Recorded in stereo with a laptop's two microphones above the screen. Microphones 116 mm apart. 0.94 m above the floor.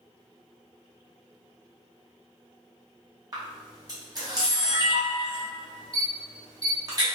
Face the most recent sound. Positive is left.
turn(degrees=-35)  # may be behind; listen again after turning